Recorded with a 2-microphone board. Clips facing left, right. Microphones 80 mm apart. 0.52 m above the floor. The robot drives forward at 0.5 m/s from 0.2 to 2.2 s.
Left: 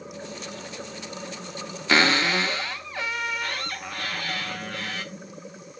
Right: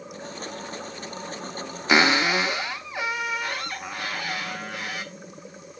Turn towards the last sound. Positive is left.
turn(degrees=-15)  # may be behind; listen again after turning